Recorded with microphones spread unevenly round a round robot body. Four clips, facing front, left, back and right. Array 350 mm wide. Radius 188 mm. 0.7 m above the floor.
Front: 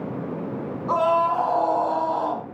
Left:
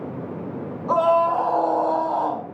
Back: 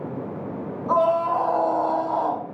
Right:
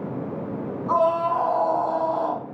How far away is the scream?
About 7.5 m.